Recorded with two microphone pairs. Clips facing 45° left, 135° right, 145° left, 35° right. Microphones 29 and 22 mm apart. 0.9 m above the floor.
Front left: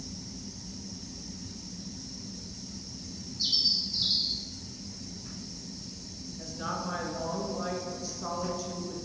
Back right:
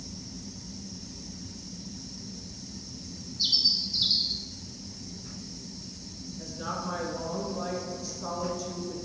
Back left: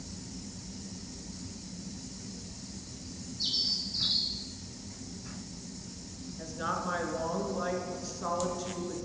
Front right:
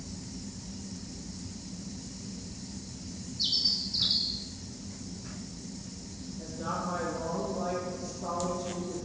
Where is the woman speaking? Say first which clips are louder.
Even, back left 1 dB; 120° left, 1.3 m.